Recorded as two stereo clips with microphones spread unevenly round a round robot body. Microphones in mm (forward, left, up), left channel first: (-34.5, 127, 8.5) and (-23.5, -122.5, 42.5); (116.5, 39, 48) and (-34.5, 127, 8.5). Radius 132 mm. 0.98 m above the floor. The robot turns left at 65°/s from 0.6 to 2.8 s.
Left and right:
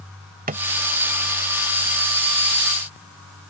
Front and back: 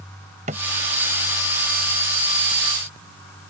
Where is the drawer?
145° right.